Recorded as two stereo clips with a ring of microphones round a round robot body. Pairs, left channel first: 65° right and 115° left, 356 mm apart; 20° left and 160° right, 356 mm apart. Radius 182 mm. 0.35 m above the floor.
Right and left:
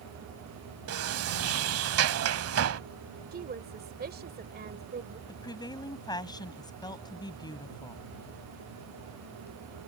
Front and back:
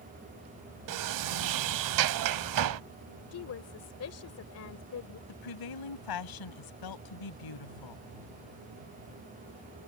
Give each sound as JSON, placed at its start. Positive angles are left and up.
{"t": 0.9, "sound": "a sliding door", "azimuth_deg": 165}
{"t": 3.3, "sound": "a woman speaking", "azimuth_deg": 55}
{"t": 5.3, "sound": "a woman speaking", "azimuth_deg": 10}